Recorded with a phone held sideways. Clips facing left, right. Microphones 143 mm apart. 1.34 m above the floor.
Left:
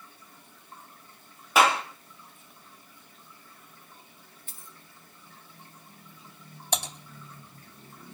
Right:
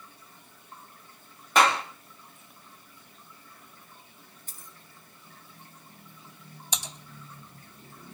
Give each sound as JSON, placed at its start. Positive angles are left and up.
{"t": 1.6, "sound": "a clap", "side_deg": 5, "distance_m": 2.0}
{"t": 4.5, "sound": "a dropped coin", "side_deg": -40, "distance_m": 1.2}
{"t": 6.7, "sound": "typing on a keyboard", "side_deg": 60, "distance_m": 2.0}